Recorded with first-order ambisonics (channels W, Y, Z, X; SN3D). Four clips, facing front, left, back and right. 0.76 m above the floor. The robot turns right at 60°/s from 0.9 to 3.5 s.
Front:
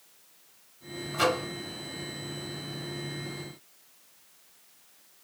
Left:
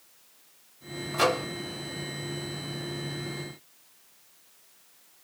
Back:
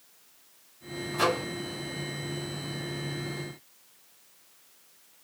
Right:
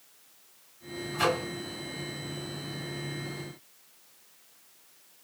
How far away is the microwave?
About 1.8 m.